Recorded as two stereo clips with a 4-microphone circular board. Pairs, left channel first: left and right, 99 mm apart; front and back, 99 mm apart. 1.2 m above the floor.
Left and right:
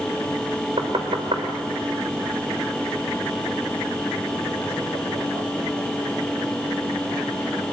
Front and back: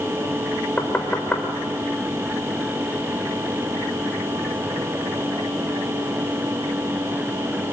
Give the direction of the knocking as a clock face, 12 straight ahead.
2 o'clock.